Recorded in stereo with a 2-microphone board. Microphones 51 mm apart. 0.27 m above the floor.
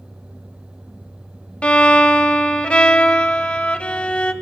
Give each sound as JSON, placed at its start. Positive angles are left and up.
{"t": 1.6, "sound": "a violin", "side_deg": 25, "distance_m": 0.8}